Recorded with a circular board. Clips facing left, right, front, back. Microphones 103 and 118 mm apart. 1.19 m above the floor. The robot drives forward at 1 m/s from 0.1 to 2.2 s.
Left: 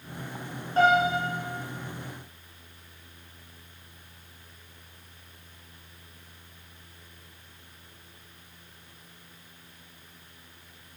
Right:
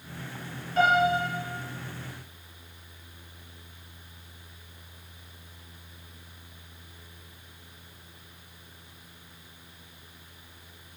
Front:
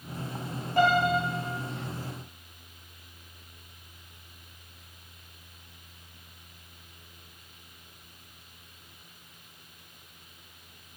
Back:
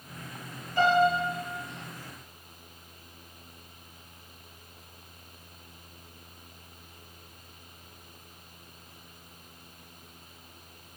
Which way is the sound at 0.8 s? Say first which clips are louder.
Left 1 dB, back 1 dB; 35° left.